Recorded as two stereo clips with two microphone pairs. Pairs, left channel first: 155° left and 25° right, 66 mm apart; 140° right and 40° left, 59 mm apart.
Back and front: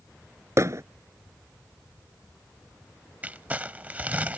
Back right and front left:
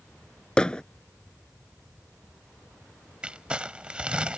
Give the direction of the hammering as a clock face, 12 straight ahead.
2 o'clock.